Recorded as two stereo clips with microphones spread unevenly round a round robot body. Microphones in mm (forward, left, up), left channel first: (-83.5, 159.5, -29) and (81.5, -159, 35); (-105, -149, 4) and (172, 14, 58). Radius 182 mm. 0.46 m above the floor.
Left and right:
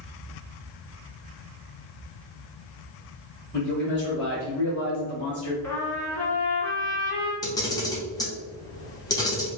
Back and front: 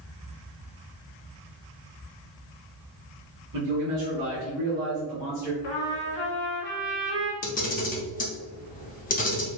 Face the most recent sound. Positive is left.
turn(degrees=175)